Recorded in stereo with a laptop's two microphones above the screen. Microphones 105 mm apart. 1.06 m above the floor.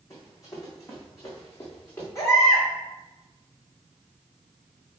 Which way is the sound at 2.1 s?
30° left (ahead or behind).